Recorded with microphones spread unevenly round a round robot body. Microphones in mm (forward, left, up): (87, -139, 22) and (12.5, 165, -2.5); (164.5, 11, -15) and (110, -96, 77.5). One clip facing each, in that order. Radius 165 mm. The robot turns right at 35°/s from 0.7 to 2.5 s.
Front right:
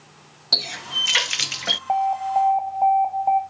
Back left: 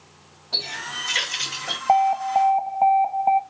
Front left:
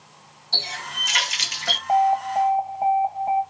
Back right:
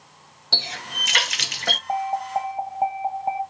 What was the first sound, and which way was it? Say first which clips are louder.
A running tap: front right 2 dB, even; 115° right.